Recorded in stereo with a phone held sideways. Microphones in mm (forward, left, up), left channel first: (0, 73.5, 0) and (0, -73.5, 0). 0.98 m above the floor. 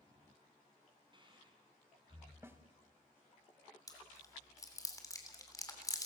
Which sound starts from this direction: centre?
A snare drum, at 2.4 s.